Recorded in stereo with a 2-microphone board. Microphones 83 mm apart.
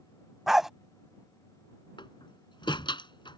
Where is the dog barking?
5° right (ahead or behind).